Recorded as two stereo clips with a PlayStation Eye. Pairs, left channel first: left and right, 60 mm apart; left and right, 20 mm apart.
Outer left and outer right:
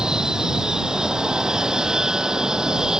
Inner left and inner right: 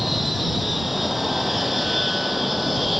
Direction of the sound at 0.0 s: 10° right (ahead or behind).